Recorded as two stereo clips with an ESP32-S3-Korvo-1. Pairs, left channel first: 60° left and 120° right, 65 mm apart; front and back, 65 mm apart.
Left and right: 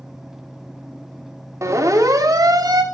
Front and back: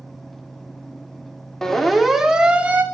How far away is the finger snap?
I don't hear a finger snap.